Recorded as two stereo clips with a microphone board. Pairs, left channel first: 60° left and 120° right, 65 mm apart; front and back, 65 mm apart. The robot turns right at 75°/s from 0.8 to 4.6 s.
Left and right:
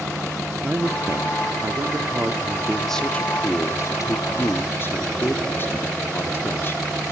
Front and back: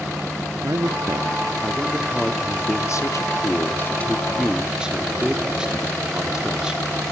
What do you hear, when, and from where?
0.6 s a man speaking: straight behind, 0.9 m; by 6.8 s 105° left, 0.9 m